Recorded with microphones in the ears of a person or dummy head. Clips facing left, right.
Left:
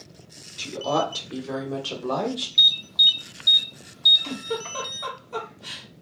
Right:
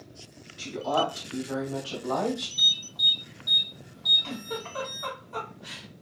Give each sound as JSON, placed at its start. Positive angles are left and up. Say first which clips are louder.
{"t": 0.6, "sound": "a woman speaking", "louder": "left 2 dB", "side_deg": 65, "distance_m": 1.5}
{"t": 2.6, "sound": "an alarm", "louder": "left 3 dB", "side_deg": 50, "distance_m": 0.7}
{"t": 4.2, "sound": "a giggle", "louder": "left 5 dB", "side_deg": 65, "distance_m": 1.3}